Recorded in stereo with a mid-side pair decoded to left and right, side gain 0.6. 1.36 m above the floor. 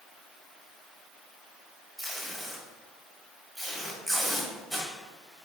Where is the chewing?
I don't hear chewing.